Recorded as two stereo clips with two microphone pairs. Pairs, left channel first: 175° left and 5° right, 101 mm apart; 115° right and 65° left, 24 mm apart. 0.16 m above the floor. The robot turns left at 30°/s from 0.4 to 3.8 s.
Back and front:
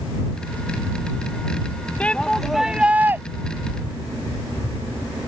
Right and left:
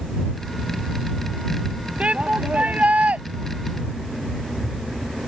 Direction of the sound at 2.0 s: 95° left.